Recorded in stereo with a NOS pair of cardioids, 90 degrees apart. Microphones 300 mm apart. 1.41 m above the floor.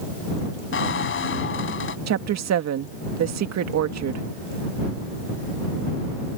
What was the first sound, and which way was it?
A squeak, 45° left.